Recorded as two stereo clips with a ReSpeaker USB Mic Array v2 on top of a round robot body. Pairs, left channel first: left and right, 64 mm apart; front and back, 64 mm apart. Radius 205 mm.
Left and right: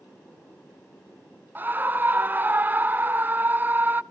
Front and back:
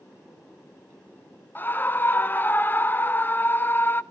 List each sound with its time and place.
1.6 s a scream: 45° right, 1.0 m